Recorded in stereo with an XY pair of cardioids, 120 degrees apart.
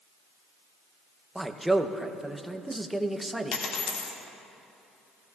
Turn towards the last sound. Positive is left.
turn(degrees=65)